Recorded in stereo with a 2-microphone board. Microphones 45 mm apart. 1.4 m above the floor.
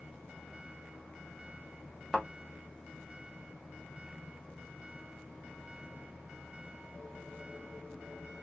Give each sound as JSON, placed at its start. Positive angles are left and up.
{"t": 2.1, "sound": "a thud", "side_deg": 25, "distance_m": 1.2}